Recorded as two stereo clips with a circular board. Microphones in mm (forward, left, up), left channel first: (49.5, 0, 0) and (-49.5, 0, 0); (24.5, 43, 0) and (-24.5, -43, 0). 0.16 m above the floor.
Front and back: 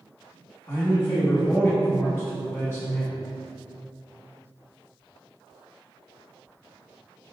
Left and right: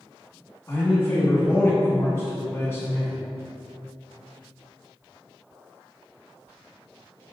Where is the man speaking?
30° left, 1.1 m.